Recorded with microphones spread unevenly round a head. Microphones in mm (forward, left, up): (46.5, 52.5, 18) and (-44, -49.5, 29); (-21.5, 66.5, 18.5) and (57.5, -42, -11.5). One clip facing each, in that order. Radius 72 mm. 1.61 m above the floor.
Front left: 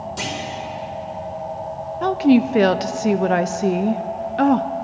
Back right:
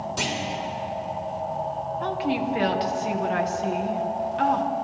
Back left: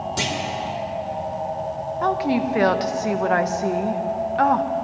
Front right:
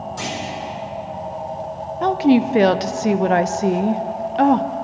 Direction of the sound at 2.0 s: 10° left.